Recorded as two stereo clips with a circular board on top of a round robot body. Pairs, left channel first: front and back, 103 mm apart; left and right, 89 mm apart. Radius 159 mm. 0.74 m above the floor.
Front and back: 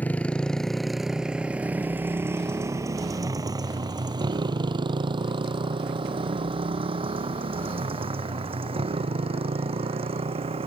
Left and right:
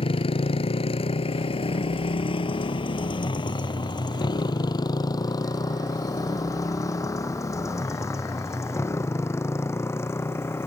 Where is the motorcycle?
75° left; by 10.7 s 155° left.